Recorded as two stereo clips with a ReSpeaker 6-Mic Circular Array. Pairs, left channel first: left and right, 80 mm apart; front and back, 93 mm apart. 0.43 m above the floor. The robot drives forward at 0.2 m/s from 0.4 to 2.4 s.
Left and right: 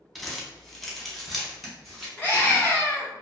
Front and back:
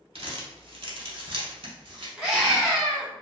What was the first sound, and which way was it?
Crumpling, 175° left.